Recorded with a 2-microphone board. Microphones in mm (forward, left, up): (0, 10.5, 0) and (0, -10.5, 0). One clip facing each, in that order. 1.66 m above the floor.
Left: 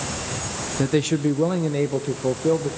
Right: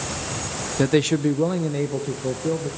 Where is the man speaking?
25° right (ahead or behind), 0.7 m; by 2.7 s 30° left (ahead or behind), 1.4 m.